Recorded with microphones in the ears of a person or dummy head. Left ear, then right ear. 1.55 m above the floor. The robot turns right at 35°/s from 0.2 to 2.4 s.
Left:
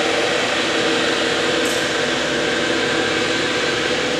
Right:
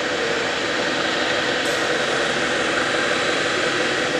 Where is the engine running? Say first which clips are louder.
Left 4 dB; 155° left, 2.5 m; by 4.2 s 125° right, 2.5 m.